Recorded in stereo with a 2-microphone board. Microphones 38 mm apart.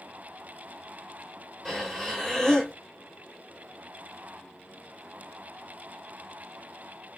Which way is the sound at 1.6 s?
10° left (ahead or behind).